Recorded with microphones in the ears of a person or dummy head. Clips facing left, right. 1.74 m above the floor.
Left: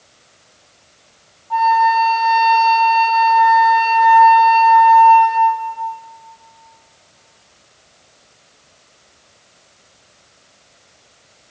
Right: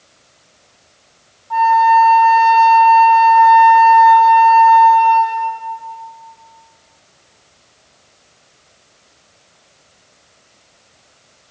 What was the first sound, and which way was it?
A flute, 10° right (ahead or behind).